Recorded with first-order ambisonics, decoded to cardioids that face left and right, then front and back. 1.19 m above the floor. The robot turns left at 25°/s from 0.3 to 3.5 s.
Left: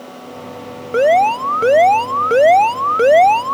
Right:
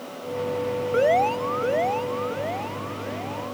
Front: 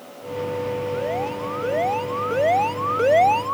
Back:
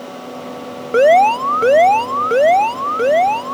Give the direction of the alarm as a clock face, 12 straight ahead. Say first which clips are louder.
Left 9 dB, back 15 dB; 7 o'clock.